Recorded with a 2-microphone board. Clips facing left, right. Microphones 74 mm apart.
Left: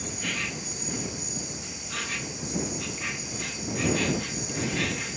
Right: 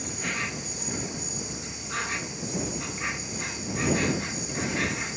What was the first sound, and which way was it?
An insect, 30° right (ahead or behind).